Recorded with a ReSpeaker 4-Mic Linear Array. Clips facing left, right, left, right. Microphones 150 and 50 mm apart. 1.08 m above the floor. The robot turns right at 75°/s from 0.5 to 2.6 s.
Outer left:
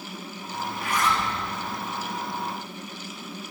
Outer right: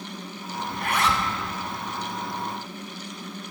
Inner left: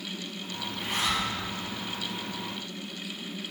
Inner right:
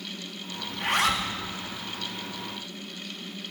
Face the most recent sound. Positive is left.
turn(degrees=5)